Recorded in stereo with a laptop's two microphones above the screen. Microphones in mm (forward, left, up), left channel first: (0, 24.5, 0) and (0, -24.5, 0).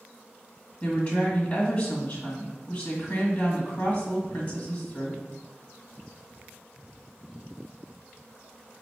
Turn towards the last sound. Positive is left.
turn(degrees=30)  # may be behind; listen again after turning